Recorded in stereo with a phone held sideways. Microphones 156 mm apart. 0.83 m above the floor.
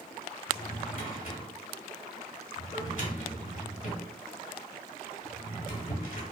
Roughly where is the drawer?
Left.